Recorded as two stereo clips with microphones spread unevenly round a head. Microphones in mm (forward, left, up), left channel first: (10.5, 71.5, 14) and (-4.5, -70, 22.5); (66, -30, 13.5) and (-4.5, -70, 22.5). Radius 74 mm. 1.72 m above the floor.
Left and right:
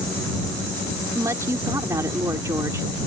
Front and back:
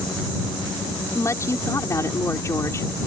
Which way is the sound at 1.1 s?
25° right.